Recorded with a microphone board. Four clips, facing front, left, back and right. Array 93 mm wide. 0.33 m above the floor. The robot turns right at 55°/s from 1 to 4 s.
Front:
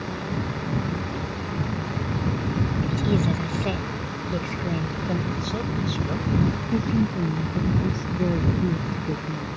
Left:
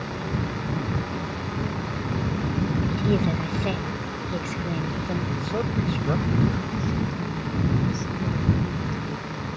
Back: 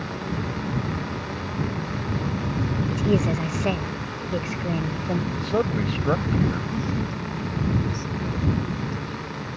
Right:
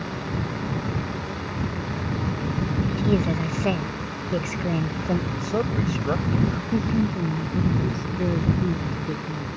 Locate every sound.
2.9 s a woman speaking: 175° right; by 5.2 s 115° right
5.3 s a man speaking: 160° right
6.7 s a woman speaking: 45° right